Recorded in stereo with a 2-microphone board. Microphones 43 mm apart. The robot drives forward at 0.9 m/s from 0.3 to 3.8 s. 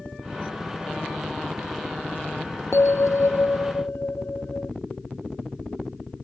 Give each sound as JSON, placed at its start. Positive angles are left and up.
{"t": 2.7, "sound": "a bell", "side_deg": 80}